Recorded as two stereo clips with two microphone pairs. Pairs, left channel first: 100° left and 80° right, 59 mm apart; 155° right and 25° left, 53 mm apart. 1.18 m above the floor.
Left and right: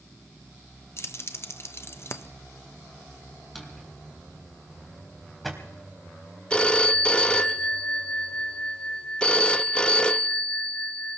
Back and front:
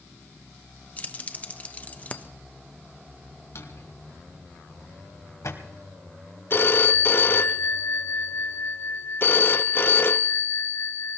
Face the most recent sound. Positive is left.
turn(degrees=170)